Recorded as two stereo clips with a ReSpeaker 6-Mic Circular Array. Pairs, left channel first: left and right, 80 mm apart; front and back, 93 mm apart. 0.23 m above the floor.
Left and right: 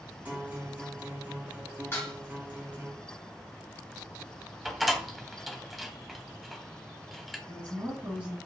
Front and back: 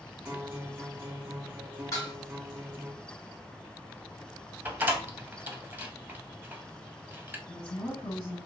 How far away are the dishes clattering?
About 1.3 m.